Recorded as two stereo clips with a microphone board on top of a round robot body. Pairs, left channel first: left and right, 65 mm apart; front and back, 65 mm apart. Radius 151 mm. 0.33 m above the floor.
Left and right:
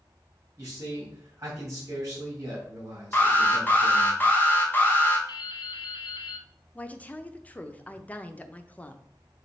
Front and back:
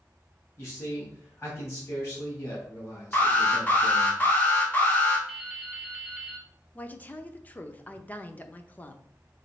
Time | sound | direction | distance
0.6 | a man speaking | 50° right | 3.5 m
3.1 | an alarm | 50° left | 2 m
5.3 | dripping | 95° left | 0.7 m
6.8 | a woman speaking | 40° left | 0.9 m